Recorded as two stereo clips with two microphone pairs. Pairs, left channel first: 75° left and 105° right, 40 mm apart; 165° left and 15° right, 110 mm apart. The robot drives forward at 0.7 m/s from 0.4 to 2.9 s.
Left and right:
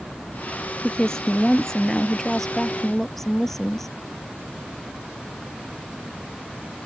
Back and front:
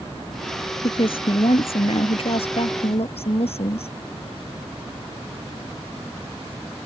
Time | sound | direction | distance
0.8 | a woman speaking | 145° left | ?